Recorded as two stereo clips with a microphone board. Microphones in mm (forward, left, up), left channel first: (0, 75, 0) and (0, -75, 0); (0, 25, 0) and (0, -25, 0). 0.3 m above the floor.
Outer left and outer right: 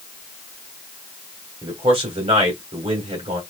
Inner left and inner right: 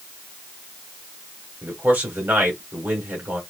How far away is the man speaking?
About 1.9 m.